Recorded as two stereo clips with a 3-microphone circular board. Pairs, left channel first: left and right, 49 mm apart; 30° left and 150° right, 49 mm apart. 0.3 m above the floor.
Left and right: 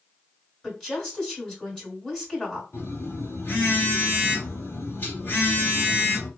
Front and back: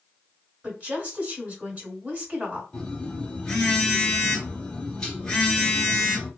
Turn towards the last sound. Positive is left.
turn(degrees=105)